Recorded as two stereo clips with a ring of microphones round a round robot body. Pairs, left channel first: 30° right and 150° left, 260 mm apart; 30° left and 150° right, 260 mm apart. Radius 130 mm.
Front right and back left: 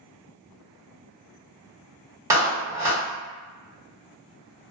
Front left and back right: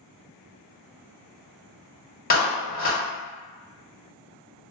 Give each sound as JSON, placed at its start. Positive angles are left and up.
{"t": 2.3, "sound": "a clap", "azimuth_deg": 75, "distance_m": 1.1}